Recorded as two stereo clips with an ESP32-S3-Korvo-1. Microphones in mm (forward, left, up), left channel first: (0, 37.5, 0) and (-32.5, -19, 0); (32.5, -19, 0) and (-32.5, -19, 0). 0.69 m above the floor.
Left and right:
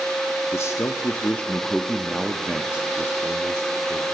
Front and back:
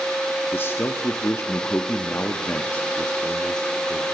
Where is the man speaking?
40° left, 0.9 m; by 4.0 s 80° right, 1.4 m.